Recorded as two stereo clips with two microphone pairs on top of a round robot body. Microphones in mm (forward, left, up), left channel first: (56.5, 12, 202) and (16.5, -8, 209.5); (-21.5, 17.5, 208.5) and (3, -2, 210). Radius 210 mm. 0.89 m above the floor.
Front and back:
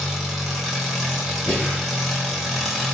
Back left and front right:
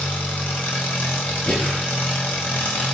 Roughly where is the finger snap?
I don't hear a finger snap.